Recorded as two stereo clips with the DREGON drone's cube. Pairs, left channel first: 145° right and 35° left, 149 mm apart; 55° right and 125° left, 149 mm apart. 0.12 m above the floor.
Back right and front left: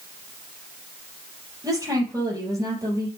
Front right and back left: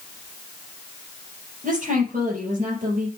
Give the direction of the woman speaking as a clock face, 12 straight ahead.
9 o'clock.